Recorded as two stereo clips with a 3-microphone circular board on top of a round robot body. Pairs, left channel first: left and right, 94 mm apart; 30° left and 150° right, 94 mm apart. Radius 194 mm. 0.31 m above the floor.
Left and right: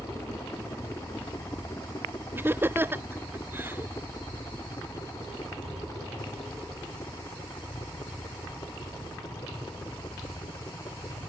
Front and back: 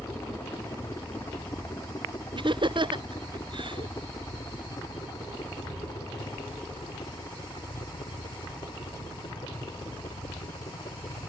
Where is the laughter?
155° right.